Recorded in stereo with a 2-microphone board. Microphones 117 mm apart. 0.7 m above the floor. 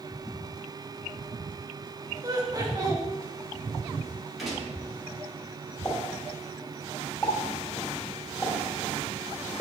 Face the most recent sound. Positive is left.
turn(degrees=20)  # may be behind; listen again after turning